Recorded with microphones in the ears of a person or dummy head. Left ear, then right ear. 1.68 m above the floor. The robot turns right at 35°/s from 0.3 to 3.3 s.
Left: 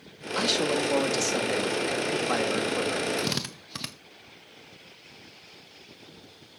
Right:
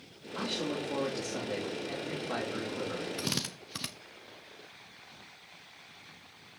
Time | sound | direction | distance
0.3 | a man speaking | 65° left | 3 m
3.2 | a drill | 10° left (ahead or behind) | 0.7 m